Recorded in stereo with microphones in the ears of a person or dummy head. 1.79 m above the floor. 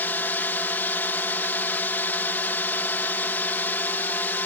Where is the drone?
10° left (ahead or behind).